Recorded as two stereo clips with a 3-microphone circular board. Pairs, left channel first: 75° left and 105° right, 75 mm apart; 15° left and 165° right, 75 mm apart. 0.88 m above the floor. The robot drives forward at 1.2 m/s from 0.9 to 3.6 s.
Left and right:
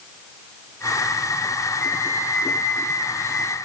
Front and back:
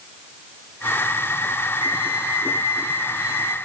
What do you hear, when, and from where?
1.8 s a flute: 10° left, 4 m; by 3.6 s 25° left, 1.9 m